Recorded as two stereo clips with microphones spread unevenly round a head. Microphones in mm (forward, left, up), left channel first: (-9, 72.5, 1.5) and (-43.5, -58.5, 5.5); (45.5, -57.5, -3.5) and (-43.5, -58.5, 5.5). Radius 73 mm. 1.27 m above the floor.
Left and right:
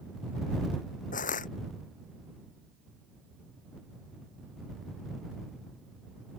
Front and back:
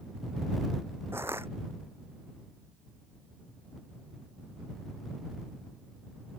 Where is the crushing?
105° left.